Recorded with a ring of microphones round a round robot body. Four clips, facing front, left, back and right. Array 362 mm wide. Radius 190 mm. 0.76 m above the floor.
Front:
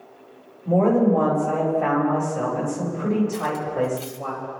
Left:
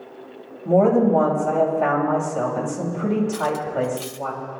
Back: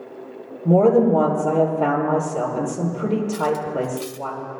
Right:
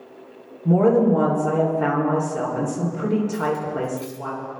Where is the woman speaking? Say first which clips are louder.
Even, back 3 dB; 155° right, 2.5 m.